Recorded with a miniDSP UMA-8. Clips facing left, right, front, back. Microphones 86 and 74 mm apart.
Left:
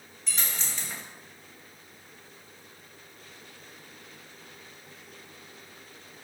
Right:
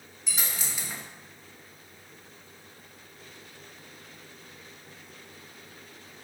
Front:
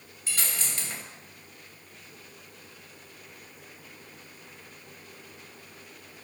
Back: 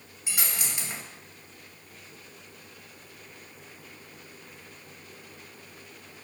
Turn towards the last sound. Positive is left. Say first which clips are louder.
# even, back 1 dB
turn(degrees=-150)